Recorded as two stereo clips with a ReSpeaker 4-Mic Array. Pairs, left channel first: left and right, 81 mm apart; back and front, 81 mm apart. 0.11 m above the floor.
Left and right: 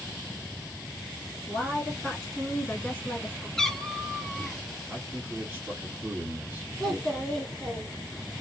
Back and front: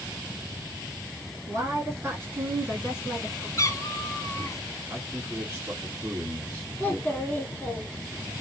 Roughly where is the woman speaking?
Ahead.